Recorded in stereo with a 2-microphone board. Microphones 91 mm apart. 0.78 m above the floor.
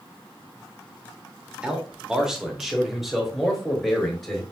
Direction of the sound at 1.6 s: 10° right (ahead or behind).